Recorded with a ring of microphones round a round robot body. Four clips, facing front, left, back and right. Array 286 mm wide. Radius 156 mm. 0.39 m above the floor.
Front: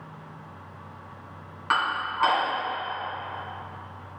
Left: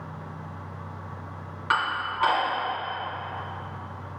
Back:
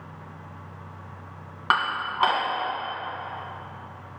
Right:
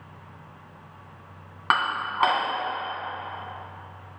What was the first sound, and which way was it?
Dishes clattering, 130° right.